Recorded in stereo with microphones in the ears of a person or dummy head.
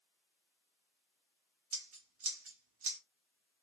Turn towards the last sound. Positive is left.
turn(degrees=-40)  # may be behind; listen again after turning